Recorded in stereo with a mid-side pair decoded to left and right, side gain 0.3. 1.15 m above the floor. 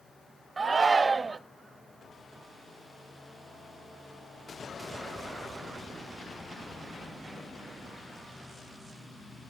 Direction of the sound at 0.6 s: 50° right.